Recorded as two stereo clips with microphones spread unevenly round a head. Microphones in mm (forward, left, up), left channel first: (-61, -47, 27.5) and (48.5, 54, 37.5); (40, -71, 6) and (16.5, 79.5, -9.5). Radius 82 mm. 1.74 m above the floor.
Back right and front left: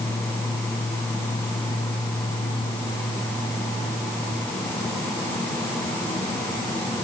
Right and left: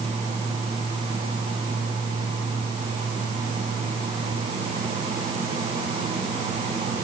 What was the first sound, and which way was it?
Only background noise.